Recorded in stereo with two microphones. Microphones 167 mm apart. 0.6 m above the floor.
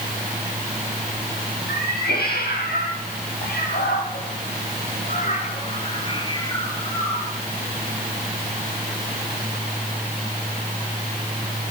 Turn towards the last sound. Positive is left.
turn(degrees=5)  # may be behind; listen again after turning